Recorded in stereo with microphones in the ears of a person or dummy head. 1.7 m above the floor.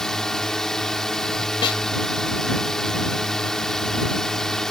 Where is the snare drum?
25° left (ahead or behind).